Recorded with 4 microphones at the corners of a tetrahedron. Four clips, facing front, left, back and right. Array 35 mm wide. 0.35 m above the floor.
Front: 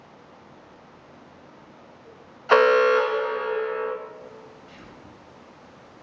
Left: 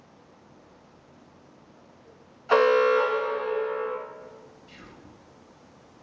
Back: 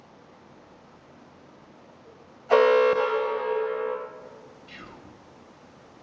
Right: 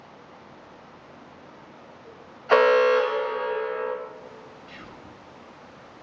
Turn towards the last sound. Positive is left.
turn(degrees=-145)